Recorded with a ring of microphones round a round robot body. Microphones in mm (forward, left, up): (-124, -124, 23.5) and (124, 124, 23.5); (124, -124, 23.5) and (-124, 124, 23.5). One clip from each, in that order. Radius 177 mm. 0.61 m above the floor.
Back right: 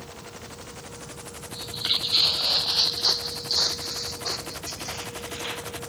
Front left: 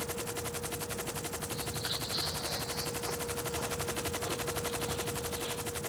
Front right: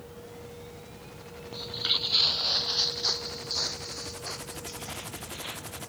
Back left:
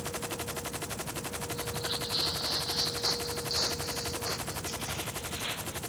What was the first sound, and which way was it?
Footsteps, 80° right.